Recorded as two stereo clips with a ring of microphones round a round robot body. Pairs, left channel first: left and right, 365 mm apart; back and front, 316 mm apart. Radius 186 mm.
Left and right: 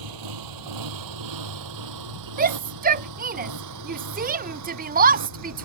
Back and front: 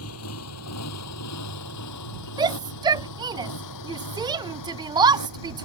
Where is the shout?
60° right.